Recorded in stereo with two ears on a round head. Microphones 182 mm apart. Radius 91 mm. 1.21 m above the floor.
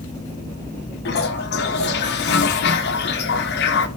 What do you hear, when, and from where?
1.1 s a toilet flushing: 55° left (ahead or behind), 1.1 m